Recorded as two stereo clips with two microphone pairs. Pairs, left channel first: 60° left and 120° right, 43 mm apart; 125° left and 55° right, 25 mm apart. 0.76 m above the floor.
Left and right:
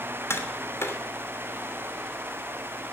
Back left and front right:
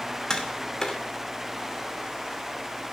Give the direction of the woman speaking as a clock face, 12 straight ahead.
No woman speaking in this recording.